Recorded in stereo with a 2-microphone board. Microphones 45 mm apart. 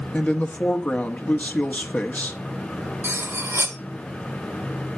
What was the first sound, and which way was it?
A woman speaking, 40° left (ahead or behind).